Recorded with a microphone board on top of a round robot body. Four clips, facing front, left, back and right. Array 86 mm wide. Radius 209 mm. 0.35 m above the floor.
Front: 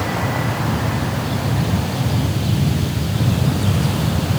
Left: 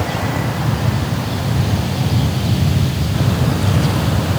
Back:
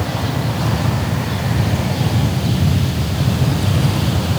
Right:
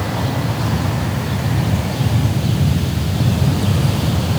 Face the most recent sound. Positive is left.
No sound to turn to.